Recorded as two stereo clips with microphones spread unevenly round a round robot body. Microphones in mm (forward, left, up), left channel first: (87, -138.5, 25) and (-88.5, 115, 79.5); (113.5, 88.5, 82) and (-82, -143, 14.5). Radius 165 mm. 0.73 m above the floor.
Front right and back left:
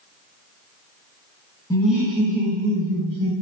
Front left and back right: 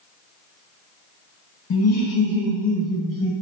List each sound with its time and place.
1.7 s laughter: straight ahead, 0.5 m; by 3.3 s 85° left, 1.0 m